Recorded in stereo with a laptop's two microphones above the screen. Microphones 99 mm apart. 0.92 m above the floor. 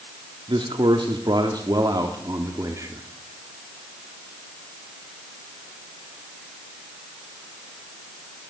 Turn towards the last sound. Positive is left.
turn(degrees=-35)  # may be behind; listen again after turning